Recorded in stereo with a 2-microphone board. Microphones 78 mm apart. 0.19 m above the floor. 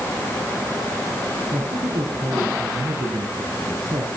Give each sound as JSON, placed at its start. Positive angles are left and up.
{"t": 1.5, "sound": "a man speaking", "side_deg": -70, "distance_m": 5.0}